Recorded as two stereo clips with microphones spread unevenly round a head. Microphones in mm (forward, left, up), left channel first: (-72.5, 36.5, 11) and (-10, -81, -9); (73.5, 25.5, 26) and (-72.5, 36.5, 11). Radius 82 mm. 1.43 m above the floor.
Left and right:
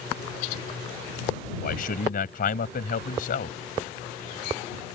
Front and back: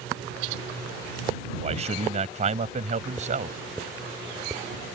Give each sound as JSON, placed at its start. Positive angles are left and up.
{"t": 1.6, "sound": "a man speaking", "azimuth_deg": 130}